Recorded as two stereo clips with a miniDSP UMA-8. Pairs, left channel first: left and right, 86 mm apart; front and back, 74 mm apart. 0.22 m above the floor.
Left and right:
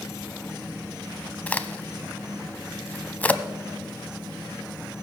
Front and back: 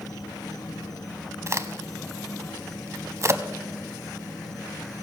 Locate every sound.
0.0 s an insect: 30° left, 1.5 m
1.5 s a crack: 155° left, 0.5 m